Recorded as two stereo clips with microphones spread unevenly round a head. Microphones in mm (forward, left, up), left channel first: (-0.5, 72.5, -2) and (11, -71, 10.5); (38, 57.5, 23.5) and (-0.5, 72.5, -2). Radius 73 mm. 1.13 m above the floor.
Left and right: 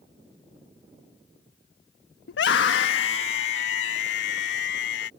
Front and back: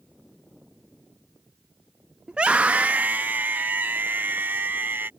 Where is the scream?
85° left; by 5.1 s 110° left.